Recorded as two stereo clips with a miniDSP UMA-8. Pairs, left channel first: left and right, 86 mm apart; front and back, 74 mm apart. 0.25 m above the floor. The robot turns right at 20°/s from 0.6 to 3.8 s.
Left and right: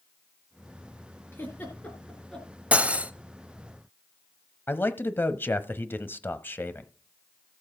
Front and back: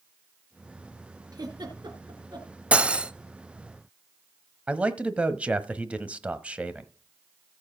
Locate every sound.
1.3 s a giggle: 155° left, 3.5 m; by 2.5 s 175° left, 3.5 m
2.7 s cutlery clinking: 135° right, 0.6 m; by 3.1 s 130° right, 0.6 m
4.7 s a man speaking: 125° left, 1.0 m